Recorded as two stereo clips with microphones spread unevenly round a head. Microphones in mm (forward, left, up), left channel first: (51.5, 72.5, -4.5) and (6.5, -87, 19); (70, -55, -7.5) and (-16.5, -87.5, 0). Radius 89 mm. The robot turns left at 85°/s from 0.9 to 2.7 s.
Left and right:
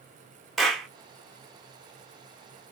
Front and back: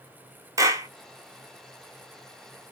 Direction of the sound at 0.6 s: 175° left.